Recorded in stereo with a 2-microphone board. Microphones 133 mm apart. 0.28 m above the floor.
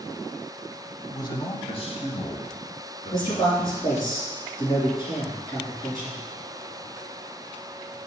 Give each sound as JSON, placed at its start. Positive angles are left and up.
{"t": 1.1, "sound": "a man speaking", "side_deg": 25, "distance_m": 1.0}
{"t": 3.1, "sound": "a man speaking", "side_deg": 30, "distance_m": 3.0}